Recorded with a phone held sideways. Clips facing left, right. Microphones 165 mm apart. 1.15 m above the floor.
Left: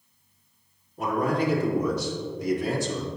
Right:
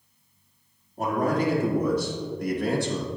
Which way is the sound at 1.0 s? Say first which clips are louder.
Right 1 dB; 45° right (ahead or behind).